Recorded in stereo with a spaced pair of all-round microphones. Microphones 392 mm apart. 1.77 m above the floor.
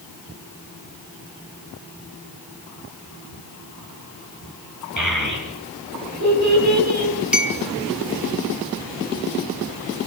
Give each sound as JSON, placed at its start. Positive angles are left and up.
{"t": 5.0, "sound": "a child speaking", "side_deg": -50, "distance_m": 7.5}
{"t": 7.3, "sound": "a clink", "side_deg": 0, "distance_m": 1.3}